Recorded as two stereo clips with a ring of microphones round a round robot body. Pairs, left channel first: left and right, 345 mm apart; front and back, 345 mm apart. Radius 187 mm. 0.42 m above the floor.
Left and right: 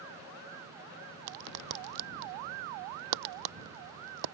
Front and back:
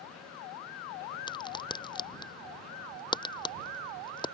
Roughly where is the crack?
Right.